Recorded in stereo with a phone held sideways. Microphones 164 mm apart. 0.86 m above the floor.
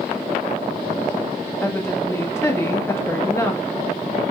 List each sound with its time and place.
1.6 s a woman speaking: 15° left (ahead or behind), 1.0 m